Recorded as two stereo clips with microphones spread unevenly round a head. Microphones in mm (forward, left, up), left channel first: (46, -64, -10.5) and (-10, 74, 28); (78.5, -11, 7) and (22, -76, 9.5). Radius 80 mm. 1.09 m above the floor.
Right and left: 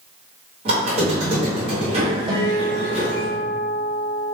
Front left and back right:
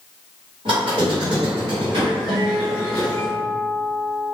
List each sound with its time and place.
0.7 s a squeak: 165° left, 0.9 m
2.3 s a guitar: 95° left, 1.2 m